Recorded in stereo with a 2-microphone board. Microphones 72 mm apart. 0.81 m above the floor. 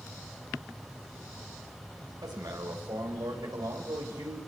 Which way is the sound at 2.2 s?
70° right (ahead or behind).